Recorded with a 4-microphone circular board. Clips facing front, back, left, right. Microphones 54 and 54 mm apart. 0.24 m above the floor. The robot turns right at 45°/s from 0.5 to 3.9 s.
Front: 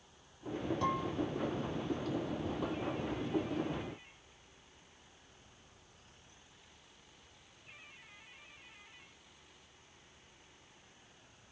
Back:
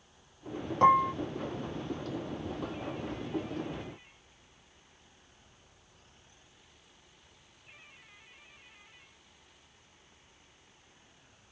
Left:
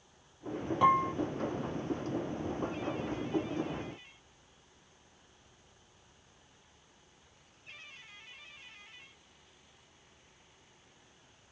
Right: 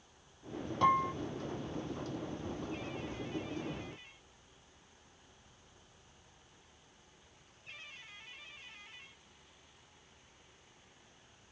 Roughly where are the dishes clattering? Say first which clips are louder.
Back 15 dB, left 3 dB; behind.